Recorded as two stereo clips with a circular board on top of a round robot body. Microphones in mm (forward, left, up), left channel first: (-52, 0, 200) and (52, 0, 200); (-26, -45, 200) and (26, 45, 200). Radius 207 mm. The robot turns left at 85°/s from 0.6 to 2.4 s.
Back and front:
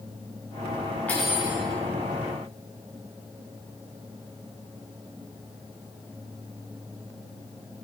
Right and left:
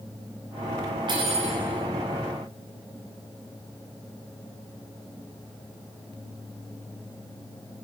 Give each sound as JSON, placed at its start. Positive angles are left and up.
{"t": 1.1, "sound": "cutlery clinking", "azimuth_deg": 105, "distance_m": 0.6}